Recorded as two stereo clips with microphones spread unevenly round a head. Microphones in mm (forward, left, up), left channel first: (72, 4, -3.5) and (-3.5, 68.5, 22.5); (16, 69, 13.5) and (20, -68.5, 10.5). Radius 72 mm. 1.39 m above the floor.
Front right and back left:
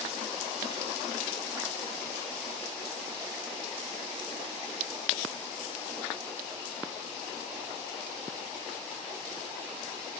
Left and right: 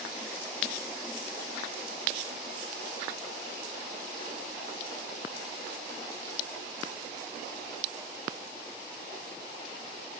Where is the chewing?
No chewing in this recording.